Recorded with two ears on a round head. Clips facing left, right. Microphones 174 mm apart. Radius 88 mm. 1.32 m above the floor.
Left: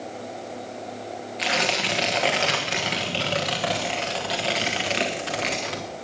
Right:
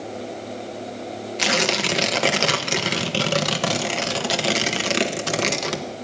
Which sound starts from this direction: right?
Tearing paper, at 1.4 s.